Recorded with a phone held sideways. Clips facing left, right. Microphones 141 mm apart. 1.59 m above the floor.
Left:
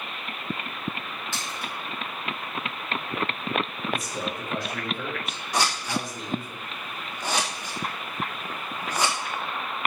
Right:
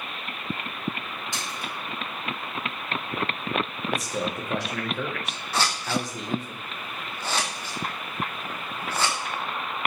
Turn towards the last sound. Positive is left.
turn(degrees=15)  # may be behind; listen again after turning